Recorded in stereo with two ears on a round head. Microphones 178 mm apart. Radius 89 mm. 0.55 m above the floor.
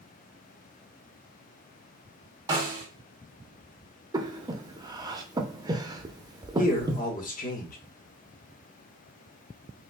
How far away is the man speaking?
About 1.2 m.